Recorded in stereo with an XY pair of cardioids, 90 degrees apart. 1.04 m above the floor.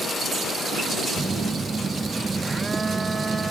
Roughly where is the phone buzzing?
Ahead right.